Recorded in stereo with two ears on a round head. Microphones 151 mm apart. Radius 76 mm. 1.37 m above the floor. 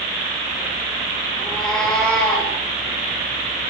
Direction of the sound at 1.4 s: Centre (ahead or behind).